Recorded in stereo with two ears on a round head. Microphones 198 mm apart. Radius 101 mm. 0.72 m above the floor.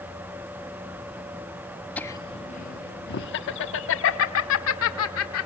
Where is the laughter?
5° left (ahead or behind), 0.6 m; by 5.5 s 70° left (ahead or behind), 2 m.